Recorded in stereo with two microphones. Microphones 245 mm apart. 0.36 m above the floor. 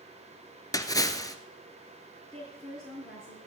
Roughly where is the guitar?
No guitar in this recording.